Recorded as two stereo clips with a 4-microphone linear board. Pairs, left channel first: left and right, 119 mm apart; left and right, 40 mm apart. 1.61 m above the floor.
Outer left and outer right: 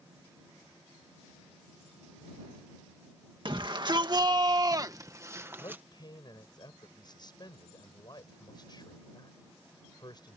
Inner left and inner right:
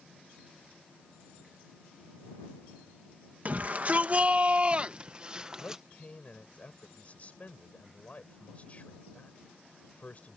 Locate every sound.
3.5 s a shout: 40° right (ahead or behind); by 5.8 s 15° right (ahead or behind)
5.6 s a man speaking: 35° left (ahead or behind)